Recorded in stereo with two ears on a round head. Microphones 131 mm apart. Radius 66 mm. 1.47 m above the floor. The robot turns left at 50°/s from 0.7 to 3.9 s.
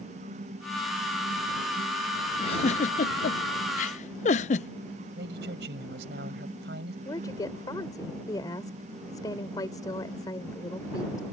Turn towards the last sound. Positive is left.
turn(degrees=25)  # may be behind; listen again after turning